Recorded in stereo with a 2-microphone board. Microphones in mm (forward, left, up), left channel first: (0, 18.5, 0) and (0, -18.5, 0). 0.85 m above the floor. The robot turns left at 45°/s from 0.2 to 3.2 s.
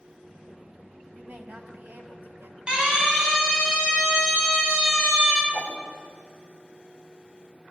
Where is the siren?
20° right (ahead or behind), 9 m; by 5.4 s 10° right (ahead or behind), 7 m.